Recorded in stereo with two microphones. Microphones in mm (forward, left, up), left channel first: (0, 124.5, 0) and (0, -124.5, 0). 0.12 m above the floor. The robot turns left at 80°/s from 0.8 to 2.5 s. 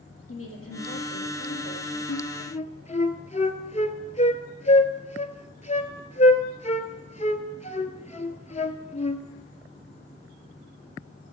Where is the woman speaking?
110° left, 3 m; by 2.0 s 15° left, 3 m.